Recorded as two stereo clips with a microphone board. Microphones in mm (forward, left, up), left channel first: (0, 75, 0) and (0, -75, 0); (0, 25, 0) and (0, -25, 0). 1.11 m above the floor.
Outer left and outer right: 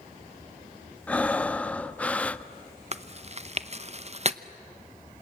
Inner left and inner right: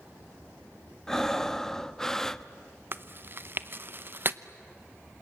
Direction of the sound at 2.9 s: 45° right (ahead or behind).